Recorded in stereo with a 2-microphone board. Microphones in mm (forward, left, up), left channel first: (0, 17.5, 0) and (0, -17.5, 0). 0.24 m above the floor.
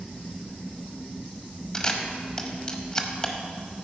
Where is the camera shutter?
20° left (ahead or behind), 1.0 m.